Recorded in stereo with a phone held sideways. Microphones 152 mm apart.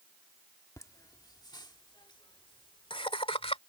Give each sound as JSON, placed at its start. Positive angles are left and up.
{"t": 0.8, "sound": "laughter", "side_deg": 20}